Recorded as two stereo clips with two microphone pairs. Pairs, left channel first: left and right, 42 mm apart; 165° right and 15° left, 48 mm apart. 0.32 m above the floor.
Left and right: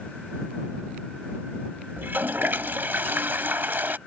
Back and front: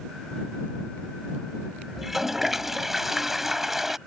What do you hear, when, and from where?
2.0 s a toilet flushing: 65° right